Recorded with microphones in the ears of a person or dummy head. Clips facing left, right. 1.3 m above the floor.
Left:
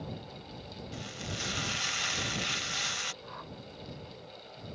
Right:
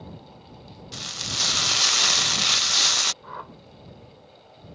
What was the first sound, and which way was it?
Frying, 80° right.